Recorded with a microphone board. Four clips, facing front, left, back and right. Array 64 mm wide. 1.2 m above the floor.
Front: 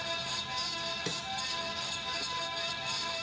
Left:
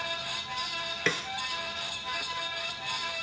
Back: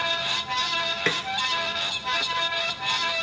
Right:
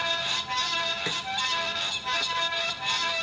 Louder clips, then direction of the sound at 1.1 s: Left 2 dB, back 12 dB; 155° left.